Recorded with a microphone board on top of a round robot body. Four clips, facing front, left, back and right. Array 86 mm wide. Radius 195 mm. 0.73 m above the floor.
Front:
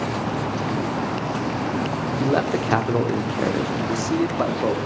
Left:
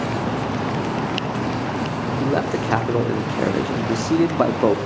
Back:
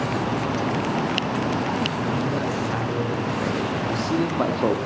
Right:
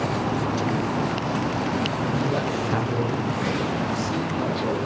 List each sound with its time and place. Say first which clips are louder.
2.2 s a man speaking: left 3 dB, front 4 dB; 35° left, 3 m; by 4.8 s 90° left, 2.5 m